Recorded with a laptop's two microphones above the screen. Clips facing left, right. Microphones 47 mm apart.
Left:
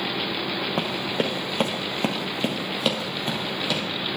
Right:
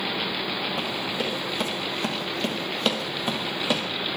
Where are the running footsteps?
55° left (ahead or behind), 2.0 m; by 3.8 s 20° right (ahead or behind), 1.9 m.